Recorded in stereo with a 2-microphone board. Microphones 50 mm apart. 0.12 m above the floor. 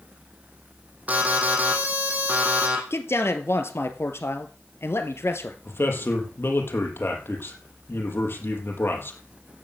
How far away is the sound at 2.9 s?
About 2 m.